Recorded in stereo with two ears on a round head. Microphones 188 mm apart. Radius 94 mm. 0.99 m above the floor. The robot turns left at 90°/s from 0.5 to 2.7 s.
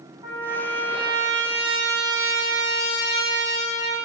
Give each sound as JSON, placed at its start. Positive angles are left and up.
{"t": 0.2, "sound": "a trumpet", "azimuth_deg": -35, "distance_m": 1.1}